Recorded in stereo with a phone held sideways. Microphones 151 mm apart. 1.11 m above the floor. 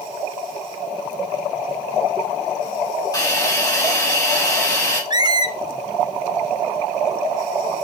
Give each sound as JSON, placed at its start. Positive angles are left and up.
{"t": 3.1, "sound": "a hiss", "side_deg": 25, "distance_m": 3.5}
{"t": 5.1, "sound": "a squeak", "side_deg": -30, "distance_m": 0.6}